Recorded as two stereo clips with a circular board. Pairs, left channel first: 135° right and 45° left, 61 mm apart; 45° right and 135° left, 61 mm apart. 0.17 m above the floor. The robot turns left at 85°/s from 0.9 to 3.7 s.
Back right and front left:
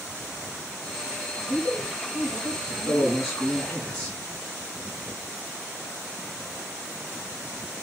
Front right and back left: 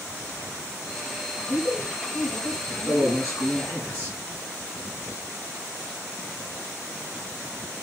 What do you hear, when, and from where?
1.4 s a woman speaking: 150° left, 1.9 m; by 3.6 s 40° right, 1.9 m
2.7 s a man speaking: 25° left, 1.9 m; by 4.2 s 65° right, 1.9 m